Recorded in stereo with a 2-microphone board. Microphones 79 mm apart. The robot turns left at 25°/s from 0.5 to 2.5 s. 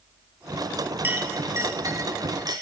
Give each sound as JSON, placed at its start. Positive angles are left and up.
{"t": 1.0, "sound": "a clink", "side_deg": -25, "distance_m": 1.8}